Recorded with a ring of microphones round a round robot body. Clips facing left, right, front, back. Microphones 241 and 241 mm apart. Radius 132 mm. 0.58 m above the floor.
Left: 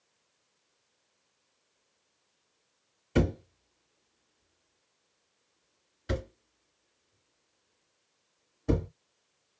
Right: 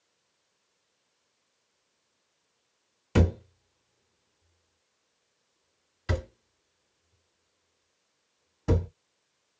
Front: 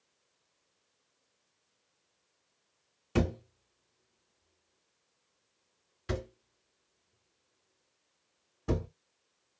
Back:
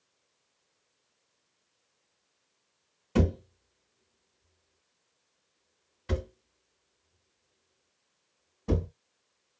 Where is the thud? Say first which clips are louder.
Right 1 dB, back 3 dB; 75° right, 1.7 m.